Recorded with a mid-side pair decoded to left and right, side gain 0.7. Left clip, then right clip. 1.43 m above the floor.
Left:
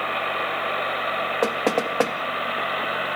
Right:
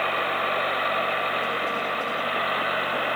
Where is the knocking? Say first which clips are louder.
Left 3 dB; 65° left, 1.7 m.